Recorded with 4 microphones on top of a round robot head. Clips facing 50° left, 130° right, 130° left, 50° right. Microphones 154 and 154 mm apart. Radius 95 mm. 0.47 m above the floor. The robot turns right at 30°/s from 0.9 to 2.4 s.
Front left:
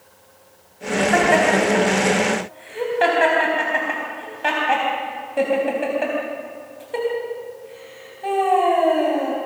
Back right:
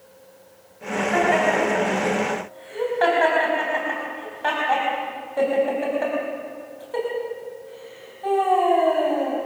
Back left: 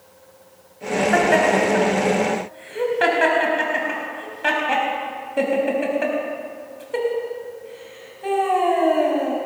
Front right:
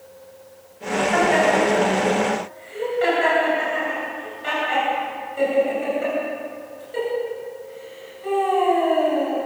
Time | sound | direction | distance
1.1 | laughter | 85° left | 4 m